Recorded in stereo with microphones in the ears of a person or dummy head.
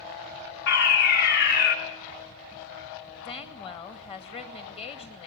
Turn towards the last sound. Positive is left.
turn(degrees=25)  # may be behind; listen again after turning